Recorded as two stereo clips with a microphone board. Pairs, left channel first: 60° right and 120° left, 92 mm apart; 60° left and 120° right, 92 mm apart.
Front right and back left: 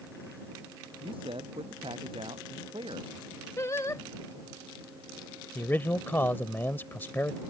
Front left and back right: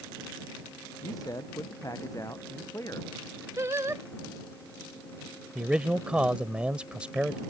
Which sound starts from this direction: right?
Singing, at 3.6 s.